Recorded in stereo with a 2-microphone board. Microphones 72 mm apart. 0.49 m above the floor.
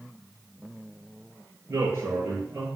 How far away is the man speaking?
About 9 m.